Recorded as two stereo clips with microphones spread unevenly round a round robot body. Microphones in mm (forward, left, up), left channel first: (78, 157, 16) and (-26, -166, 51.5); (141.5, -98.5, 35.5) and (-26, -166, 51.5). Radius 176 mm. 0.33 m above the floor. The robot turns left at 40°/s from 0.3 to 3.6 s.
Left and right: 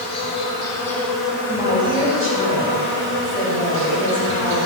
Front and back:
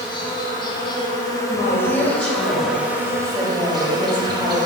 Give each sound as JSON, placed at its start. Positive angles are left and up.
{"t": 0.0, "sound": "an insect", "azimuth_deg": 30, "distance_m": 0.8}
{"t": 1.5, "sound": "a woman speaking", "azimuth_deg": -30, "distance_m": 1.7}